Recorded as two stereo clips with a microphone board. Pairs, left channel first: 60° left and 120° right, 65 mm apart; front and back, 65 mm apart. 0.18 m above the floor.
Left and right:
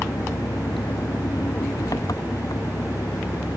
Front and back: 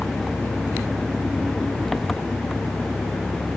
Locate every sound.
0.0 s an engine running: 85° left